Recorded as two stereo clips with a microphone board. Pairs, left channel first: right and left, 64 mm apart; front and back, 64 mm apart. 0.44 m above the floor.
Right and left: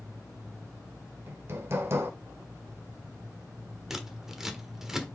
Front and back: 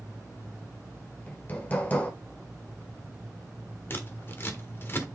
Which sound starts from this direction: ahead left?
Hammering, at 1.3 s.